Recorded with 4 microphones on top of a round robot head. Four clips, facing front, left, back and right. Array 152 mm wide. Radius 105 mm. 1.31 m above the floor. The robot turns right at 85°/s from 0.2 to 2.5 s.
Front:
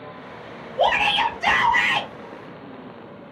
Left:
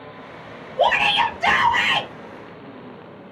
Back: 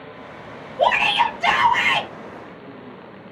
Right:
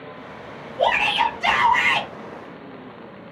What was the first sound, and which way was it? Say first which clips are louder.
A shout: left 1 dB, back 2 dB; 50° left.